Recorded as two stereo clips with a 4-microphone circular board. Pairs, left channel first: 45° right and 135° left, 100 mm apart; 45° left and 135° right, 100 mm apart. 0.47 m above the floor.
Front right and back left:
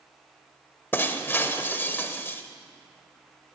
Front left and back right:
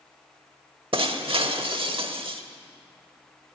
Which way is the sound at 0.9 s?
115° right.